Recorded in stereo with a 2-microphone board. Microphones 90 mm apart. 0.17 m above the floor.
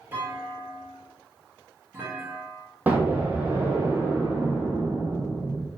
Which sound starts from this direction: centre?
An explosion, at 2.9 s.